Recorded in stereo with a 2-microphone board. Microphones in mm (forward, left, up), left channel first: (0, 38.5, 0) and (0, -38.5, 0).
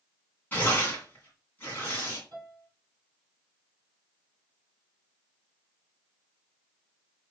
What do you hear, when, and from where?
0.5 s tearing paper: 25° left (ahead or behind), 2 m
2.3 s a piano: 50° right (ahead or behind), 3.5 m